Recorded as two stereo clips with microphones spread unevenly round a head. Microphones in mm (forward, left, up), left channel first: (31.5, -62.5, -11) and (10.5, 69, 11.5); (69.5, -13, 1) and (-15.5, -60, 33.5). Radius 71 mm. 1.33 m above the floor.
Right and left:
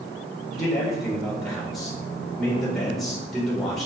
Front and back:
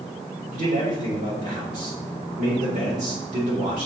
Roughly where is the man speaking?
Behind.